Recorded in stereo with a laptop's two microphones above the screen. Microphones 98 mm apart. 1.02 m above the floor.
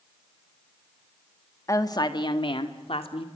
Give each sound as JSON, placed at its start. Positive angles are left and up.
{"t": 1.7, "sound": "a woman speaking", "side_deg": 35, "distance_m": 1.4}